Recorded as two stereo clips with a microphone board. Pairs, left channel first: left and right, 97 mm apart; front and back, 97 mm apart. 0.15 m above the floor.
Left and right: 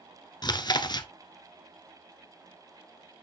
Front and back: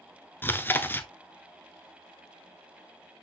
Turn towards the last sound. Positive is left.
turn(degrees=65)